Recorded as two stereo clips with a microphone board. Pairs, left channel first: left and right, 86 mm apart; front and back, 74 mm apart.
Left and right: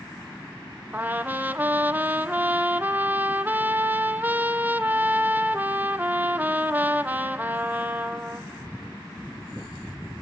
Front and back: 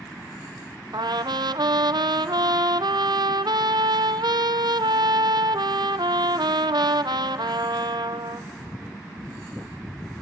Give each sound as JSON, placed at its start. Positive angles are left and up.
{"t": 0.9, "sound": "a trumpet", "azimuth_deg": -160, "distance_m": 0.6}